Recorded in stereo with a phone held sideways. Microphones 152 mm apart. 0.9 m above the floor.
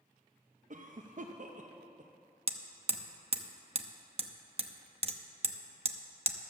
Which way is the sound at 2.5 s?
40° right (ahead or behind).